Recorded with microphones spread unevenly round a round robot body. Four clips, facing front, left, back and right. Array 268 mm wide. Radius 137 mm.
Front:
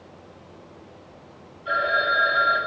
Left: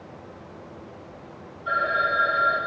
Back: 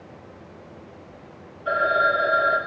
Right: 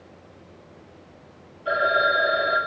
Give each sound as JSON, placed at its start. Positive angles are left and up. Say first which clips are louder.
{"t": 1.6, "sound": "a phone ringing", "louder": "right 3 dB, back 2 dB", "azimuth_deg": -135, "distance_m": 4.5}